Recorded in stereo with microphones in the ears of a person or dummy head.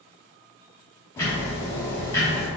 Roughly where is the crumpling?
No crumpling in this recording.